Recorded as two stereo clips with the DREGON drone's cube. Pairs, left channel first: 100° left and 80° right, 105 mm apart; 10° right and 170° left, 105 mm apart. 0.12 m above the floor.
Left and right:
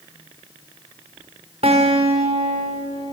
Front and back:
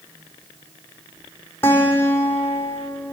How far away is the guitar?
About 4.5 m.